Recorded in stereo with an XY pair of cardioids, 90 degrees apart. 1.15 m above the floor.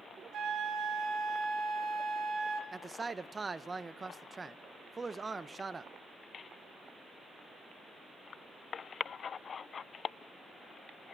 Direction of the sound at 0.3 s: 70° right.